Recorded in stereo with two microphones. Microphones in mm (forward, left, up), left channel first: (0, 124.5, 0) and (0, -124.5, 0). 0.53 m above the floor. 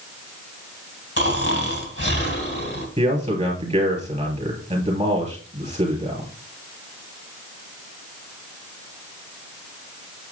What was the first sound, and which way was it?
Snoring, 45° left (ahead or behind).